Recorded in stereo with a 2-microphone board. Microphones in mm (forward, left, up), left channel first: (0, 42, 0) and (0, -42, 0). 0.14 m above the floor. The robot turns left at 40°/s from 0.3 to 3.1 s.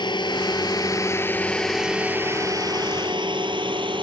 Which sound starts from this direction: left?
A drone, at 0.0 s.